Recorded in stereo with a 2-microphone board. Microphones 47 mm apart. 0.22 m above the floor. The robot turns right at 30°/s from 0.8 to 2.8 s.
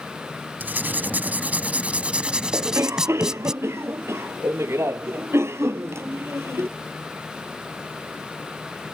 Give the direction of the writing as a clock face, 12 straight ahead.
3 o'clock.